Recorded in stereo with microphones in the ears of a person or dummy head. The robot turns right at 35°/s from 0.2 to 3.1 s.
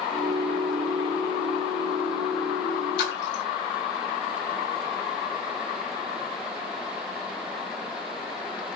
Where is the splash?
60° left (ahead or behind), 1.1 m.